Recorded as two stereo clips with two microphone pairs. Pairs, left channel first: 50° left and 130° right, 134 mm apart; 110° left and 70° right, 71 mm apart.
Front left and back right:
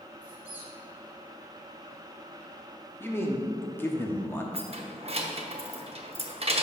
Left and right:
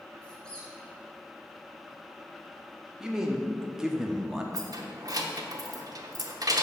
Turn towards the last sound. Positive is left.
turn(degrees=-95)